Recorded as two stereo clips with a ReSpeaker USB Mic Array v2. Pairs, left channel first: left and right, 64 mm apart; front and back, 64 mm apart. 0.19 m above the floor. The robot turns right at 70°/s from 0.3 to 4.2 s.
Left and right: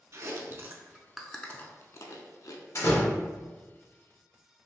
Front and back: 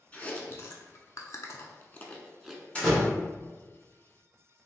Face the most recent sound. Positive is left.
turn(degrees=170)